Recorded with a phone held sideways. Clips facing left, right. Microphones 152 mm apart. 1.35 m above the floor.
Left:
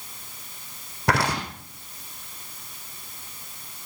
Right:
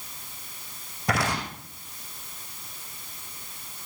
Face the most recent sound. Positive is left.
turn(degrees=75)  # may be behind; listen again after turning